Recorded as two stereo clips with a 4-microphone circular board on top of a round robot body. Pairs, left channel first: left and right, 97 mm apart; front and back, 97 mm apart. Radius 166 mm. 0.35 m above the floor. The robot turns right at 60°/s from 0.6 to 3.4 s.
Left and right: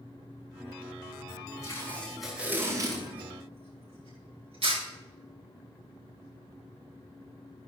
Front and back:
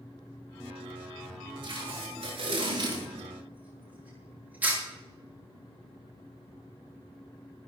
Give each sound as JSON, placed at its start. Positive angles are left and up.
{"t": 1.6, "sound": "tape being pulled", "azimuth_deg": 145, "distance_m": 9.5}